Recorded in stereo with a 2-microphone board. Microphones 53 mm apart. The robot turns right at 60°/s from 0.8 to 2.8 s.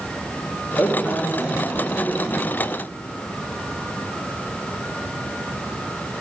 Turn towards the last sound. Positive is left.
turn(degrees=-150)